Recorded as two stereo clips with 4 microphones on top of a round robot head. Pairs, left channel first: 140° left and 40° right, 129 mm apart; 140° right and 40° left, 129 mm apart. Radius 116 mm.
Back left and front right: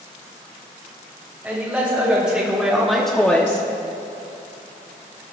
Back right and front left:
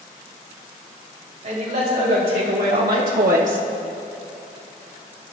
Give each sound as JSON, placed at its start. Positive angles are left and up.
{"t": 1.4, "sound": "a man speaking", "azimuth_deg": 35, "distance_m": 3.0}